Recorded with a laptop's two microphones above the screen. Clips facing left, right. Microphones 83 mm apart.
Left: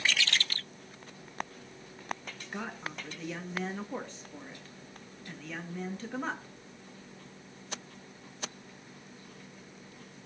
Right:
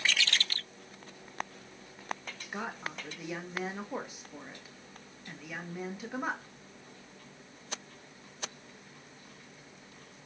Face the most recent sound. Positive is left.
turn(degrees=-10)  # may be behind; listen again after turning